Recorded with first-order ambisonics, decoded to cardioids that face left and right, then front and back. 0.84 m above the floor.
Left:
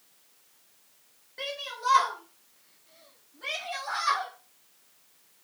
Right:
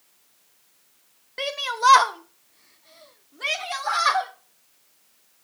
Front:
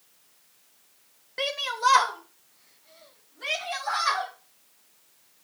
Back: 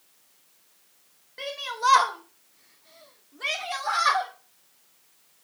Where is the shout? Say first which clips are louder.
Right 10 dB, front 3 dB; 50° right, 0.6 m; by 4.3 s 120° right, 2.5 m.